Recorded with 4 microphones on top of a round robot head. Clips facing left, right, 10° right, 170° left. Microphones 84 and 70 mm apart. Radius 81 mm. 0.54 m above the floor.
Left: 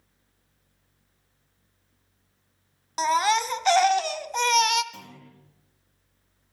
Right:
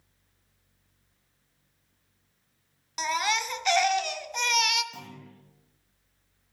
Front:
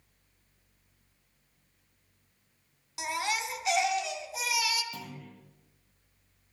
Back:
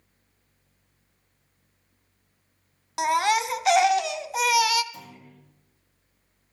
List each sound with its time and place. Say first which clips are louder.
3.0 s a baby crying: left 6 dB, back 10 dB; 140° left, 0.7 m
4.9 s a clunk: right 1 dB, front 2 dB; 5° right, 7.5 m